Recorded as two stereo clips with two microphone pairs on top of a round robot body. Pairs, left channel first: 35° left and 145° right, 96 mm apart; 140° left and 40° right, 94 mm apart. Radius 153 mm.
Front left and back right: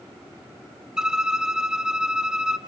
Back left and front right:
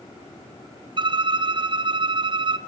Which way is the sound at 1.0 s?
55° right.